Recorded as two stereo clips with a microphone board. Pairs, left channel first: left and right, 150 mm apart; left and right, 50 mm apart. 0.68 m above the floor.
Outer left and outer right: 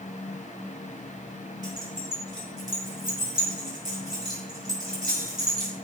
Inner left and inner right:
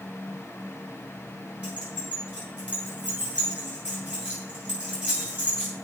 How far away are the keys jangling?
About 7 m.